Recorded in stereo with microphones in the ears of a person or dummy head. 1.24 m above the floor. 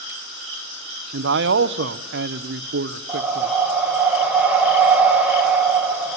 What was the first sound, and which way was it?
A man speaking, 60° right (ahead or behind).